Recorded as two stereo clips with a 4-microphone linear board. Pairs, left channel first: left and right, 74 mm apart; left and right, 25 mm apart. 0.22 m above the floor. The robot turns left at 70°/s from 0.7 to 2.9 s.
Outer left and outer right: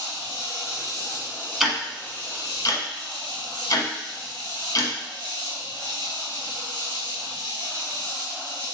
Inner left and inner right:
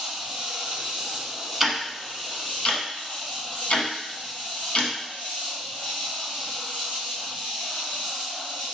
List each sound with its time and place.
0.0 s an insect: 110° right, 1.2 m; by 8.8 s 95° left, 1.2 m
1.6 s ticking: 5° right (ahead or behind), 0.9 m; by 4.9 s 55° left (ahead or behind), 0.9 m